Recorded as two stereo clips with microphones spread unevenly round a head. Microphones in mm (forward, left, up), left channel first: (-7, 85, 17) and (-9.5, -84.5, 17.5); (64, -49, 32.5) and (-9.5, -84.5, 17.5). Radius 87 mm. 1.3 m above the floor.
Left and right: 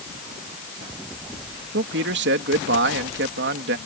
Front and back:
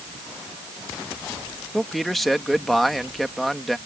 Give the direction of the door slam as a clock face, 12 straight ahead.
I don't hear a door slam.